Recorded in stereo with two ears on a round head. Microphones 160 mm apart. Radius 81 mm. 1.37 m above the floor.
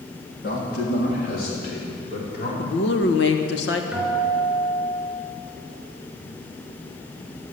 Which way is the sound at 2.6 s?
75° left (ahead or behind).